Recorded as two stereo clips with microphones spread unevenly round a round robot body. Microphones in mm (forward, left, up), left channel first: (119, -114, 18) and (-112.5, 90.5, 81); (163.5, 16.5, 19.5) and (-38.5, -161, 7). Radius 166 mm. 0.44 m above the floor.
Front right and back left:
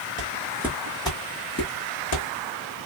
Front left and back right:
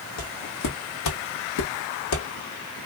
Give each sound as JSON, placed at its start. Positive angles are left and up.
{"t": 0.2, "sound": "footsteps", "azimuth_deg": 80, "distance_m": 0.9}